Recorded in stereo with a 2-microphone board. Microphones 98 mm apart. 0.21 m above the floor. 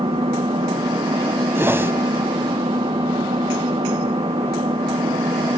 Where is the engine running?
85° right, 5 m.